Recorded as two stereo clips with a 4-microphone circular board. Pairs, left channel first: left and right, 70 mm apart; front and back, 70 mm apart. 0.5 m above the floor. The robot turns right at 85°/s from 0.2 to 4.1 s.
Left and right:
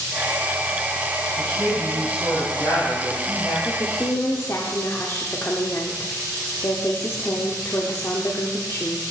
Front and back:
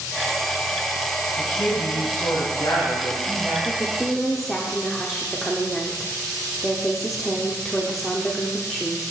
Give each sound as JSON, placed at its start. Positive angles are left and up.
{"t": 1.4, "sound": "a man speaking", "azimuth_deg": -80, "distance_m": 2.5}
{"t": 3.6, "sound": "a woman speaking", "azimuth_deg": 55, "distance_m": 0.9}